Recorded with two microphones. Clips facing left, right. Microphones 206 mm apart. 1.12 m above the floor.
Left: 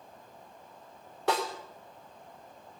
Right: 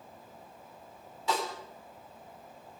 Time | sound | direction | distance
1.3 | a snare drum | 70° left (ahead or behind) | 4 m